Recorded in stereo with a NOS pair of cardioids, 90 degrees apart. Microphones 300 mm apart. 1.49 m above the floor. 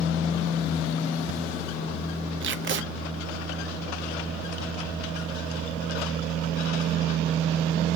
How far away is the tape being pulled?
About 0.6 m.